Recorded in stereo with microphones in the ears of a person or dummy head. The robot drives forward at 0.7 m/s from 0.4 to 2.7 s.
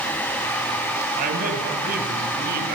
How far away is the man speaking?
About 8 m.